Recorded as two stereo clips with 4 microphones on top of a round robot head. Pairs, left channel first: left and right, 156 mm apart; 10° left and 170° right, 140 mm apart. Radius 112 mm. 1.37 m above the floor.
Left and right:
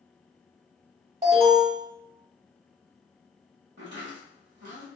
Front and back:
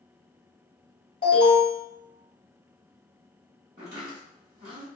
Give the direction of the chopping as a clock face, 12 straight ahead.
4 o'clock.